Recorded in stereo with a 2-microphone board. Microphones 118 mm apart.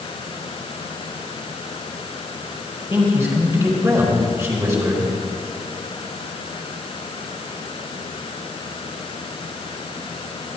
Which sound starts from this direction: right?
A man speaking, at 2.9 s.